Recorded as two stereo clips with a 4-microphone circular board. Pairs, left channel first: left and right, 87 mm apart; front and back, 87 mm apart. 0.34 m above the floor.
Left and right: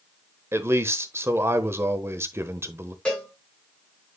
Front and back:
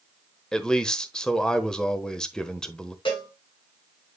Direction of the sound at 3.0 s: 15° left.